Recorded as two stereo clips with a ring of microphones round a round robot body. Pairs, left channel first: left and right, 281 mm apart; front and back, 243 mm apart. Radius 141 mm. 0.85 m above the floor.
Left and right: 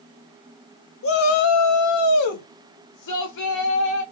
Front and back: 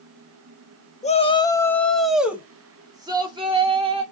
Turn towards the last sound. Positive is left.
turn(degrees=115)